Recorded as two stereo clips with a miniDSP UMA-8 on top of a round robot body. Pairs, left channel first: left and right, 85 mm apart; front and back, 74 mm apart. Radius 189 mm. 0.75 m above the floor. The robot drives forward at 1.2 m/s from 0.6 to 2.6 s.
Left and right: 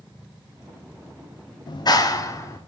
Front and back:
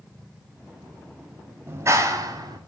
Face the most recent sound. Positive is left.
turn(degrees=145)